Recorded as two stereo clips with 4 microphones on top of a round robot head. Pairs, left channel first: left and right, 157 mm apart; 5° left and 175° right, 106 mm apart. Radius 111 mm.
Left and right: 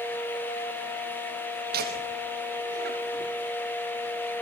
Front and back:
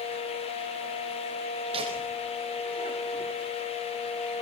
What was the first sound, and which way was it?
Laughter, 125° right.